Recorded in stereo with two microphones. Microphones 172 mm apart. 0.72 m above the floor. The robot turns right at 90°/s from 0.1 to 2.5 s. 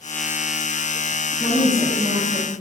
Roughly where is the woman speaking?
Behind.